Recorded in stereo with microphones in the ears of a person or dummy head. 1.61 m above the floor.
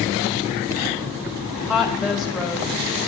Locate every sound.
1.7 s a woman speaking: 5° right (ahead or behind), 0.9 m